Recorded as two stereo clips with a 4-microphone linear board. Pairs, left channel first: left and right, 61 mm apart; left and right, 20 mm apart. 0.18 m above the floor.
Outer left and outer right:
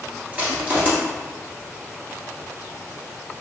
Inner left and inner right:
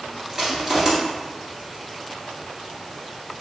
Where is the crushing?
25° right (ahead or behind), 1.4 m.